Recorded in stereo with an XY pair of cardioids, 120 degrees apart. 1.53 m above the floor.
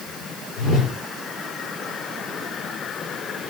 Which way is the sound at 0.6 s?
65° left.